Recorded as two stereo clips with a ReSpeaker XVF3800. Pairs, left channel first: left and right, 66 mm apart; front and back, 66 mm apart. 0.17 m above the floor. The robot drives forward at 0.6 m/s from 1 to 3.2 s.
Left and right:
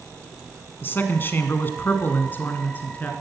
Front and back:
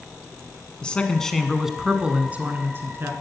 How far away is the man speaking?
About 1.2 m.